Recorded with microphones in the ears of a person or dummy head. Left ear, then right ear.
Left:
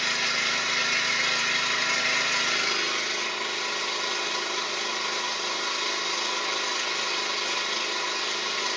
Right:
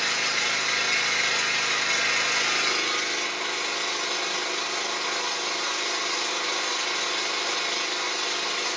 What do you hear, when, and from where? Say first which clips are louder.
0.0 s an engine running: right 1 dB; 20° right (ahead or behind), 1.4 m